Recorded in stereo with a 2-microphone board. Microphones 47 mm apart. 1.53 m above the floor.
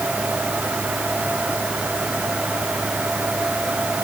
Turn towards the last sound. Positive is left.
No sound to turn to.